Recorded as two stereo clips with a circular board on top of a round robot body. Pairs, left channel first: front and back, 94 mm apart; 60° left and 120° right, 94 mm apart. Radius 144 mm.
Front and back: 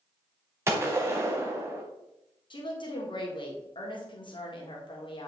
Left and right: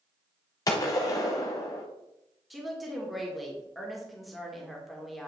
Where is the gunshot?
115° left, 0.6 m.